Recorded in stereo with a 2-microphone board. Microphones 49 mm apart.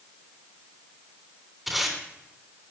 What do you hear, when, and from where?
1.7 s tape being pulled: centre (ahead or behind), 3 m